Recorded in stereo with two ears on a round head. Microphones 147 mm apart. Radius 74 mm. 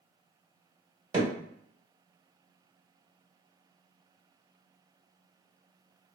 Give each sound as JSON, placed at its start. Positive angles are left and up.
{"t": 1.1, "sound": "hammering", "side_deg": -25, "distance_m": 1.6}